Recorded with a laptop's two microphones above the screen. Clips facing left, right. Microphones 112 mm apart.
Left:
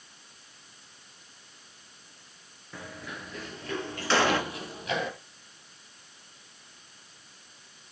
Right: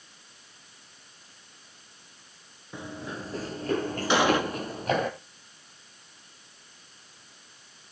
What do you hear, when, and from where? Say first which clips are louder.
2.7 s running footsteps: right 4 dB; 20° right (ahead or behind), 1.0 m; by 5.1 s 45° right (ahead or behind), 2.5 m
4.1 s an explosion: right 2 dB; 15° right (ahead or behind), 2 m